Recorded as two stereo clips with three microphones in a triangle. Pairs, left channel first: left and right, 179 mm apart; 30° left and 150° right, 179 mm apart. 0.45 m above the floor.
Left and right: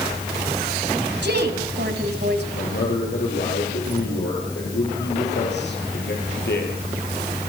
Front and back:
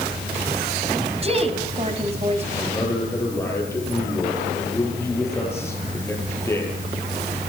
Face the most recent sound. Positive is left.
turn(degrees=105)